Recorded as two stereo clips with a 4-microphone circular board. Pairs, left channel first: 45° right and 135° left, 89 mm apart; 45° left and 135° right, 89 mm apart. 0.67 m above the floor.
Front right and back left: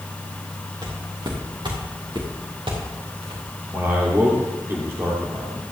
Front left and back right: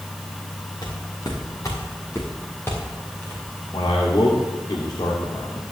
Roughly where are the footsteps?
Left.